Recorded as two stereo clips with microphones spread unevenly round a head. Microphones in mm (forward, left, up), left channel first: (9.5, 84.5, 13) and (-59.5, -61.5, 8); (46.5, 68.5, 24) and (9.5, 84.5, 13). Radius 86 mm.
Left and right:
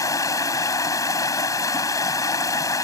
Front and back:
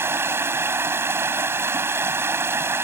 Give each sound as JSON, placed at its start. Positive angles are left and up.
{"t": 0.0, "sound": "running water", "azimuth_deg": 135}